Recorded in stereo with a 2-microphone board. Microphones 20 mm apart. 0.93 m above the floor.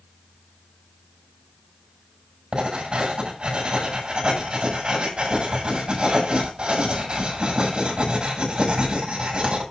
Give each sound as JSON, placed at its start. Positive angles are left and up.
{"t": 2.5, "sound": "writing", "side_deg": -45, "distance_m": 6.0}